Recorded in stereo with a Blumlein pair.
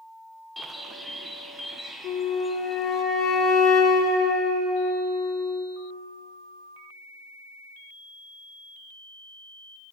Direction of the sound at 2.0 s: 15° left.